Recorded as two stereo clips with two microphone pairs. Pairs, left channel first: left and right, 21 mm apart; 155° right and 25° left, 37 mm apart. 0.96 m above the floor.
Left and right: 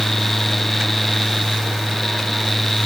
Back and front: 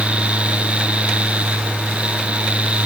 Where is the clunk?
No clunk in this recording.